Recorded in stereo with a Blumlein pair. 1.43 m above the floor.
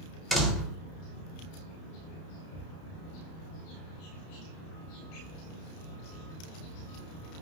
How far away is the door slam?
About 0.9 m.